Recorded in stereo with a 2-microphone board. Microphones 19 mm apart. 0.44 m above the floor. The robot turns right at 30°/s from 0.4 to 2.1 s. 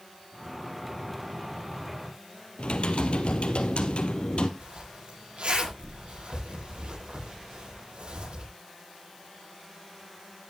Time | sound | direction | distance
2.6 | typing on a keyboard | 75° left (ahead or behind) | 2 m
4.6 | a zipper | 80° right | 10 m